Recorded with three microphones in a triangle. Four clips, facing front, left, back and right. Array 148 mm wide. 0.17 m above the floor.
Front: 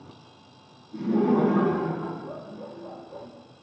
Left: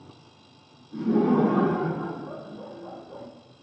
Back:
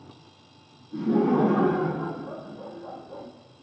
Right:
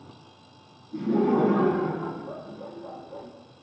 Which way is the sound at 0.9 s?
130° left.